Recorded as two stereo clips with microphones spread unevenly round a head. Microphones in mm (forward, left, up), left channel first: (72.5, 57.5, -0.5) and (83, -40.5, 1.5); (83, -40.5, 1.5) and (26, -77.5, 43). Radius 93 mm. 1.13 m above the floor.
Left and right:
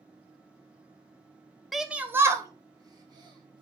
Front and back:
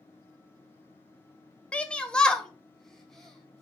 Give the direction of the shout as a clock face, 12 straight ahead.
12 o'clock.